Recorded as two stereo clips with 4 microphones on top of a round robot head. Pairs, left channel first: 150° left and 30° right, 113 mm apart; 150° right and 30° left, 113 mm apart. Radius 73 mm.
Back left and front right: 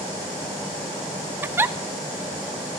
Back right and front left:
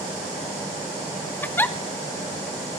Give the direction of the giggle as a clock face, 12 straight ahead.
3 o'clock.